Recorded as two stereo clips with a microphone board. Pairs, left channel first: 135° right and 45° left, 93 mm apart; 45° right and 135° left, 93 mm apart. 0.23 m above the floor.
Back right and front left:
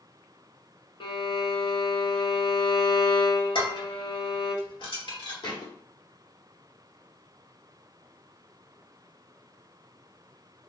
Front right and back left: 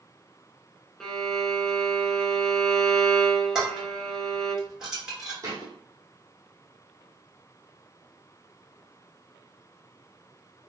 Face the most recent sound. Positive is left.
turn(degrees=-170)